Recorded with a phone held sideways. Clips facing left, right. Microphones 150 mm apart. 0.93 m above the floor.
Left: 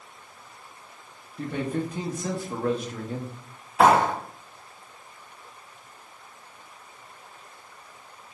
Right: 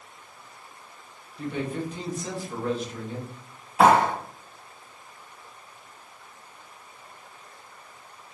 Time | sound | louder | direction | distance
1.4 | a man speaking | left 2 dB | 55° left (ahead or behind) | 0.8 m
3.8 | a clap | even | 5° right (ahead or behind) | 1.0 m